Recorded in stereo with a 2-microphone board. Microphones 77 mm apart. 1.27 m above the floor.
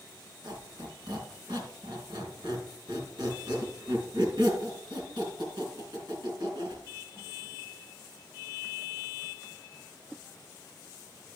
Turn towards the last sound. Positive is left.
turn(degrees=-70)  # may be behind; listen again after turning